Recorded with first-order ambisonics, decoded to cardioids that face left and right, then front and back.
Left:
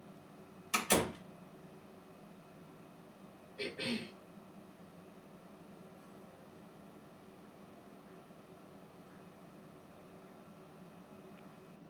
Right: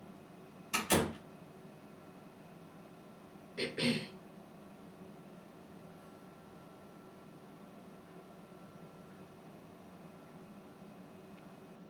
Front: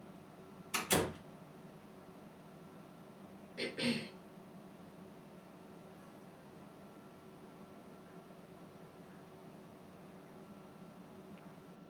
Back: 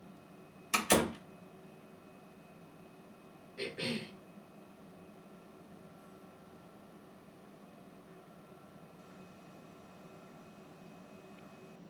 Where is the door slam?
175° left, 1.4 m.